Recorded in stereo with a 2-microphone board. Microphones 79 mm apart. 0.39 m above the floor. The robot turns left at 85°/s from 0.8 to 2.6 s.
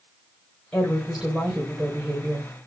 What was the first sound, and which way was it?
A woman speaking, 20° left.